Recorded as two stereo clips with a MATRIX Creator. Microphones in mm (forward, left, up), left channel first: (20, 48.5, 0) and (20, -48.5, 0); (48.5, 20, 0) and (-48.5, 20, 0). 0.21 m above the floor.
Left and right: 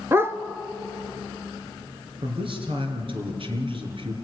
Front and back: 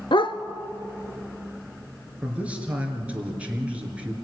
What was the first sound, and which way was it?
A dog barking, 25° right.